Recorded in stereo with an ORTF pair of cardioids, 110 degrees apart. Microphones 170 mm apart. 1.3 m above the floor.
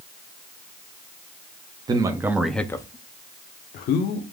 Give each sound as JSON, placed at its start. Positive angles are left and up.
{"t": 1.9, "sound": "a man speaking", "azimuth_deg": -25, "distance_m": 0.7}